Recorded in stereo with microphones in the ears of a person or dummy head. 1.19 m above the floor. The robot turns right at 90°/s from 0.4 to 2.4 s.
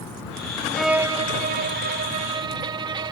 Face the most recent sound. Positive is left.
turn(degrees=-35)